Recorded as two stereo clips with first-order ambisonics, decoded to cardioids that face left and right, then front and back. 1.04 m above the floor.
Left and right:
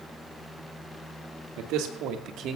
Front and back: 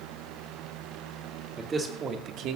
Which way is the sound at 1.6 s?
105° right.